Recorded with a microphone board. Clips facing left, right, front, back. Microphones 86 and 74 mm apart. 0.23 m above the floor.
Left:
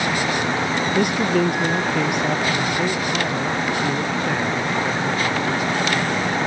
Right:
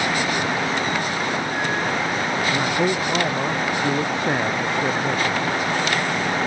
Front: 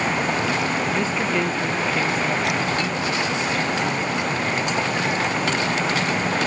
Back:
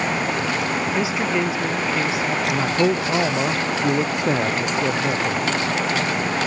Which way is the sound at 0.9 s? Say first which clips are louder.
Left 5 dB, back 1 dB; 100° left.